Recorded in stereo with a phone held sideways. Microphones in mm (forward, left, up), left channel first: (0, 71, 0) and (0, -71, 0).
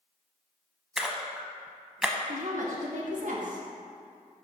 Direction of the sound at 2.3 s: 65° right (ahead or behind).